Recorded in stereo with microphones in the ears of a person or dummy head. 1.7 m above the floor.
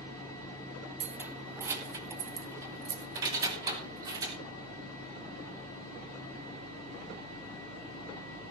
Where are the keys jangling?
5° right (ahead or behind), 0.9 m; by 4.4 s 20° right (ahead or behind), 3.5 m.